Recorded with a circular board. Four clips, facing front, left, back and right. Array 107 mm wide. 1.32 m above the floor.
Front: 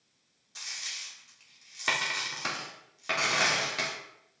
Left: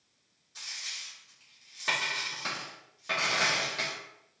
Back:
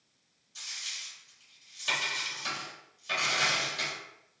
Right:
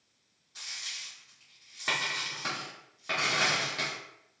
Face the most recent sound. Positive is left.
turn(degrees=-5)